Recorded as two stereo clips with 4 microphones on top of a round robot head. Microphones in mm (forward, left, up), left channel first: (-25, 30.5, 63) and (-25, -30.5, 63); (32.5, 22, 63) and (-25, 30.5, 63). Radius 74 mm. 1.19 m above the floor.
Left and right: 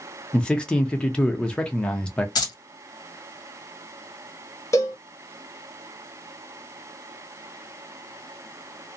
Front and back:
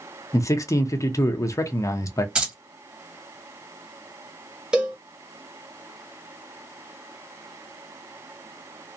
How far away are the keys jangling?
About 1.4 m.